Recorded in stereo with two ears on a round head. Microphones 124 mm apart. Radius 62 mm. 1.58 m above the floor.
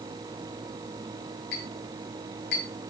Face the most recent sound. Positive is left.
turn(degrees=85)